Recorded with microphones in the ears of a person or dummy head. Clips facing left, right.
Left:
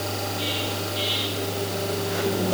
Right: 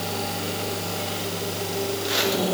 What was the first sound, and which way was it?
Only background noise.